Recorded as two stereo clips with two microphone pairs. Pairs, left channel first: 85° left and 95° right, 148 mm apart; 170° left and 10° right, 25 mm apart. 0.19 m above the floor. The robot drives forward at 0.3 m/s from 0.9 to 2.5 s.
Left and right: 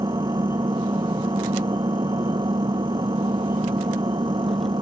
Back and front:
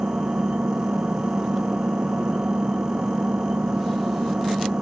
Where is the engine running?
35° right.